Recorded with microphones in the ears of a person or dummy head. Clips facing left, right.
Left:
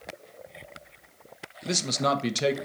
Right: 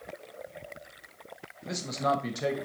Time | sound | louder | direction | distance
1.6 | a man speaking | left 2 dB | 45° left (ahead or behind) | 1.0 m